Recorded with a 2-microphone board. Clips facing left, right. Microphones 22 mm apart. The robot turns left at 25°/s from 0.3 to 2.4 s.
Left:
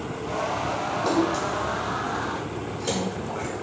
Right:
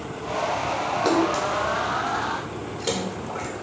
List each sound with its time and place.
1.1 s a splash: 70° right (ahead or behind), 1.6 m; by 3.5 s 45° right (ahead or behind), 1.6 m